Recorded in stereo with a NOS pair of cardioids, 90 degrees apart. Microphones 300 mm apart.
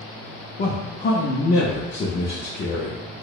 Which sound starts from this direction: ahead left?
A man speaking, at 0.6 s.